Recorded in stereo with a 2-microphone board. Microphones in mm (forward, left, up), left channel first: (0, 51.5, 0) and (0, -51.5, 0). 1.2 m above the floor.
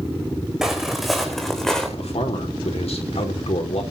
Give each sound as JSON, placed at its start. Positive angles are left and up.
{"t": 0.6, "sound": "footsteps", "side_deg": -5, "distance_m": 4.5}
{"t": 2.0, "sound": "a man speaking", "side_deg": 80, "distance_m": 4.0}